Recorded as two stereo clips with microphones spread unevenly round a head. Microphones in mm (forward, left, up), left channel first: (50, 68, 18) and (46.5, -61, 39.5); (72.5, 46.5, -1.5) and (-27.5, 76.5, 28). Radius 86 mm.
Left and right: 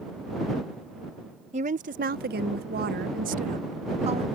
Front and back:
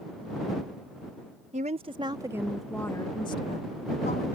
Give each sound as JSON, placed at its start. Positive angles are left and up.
{"t": 1.5, "sound": "a woman speaking", "azimuth_deg": -145}